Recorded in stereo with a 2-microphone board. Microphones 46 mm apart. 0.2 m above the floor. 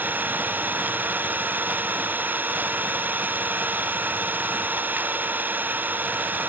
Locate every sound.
0.0 s an engine running: 45° right (ahead or behind)